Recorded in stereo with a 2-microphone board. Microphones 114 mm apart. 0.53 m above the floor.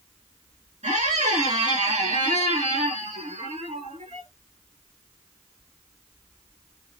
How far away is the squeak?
About 5 m.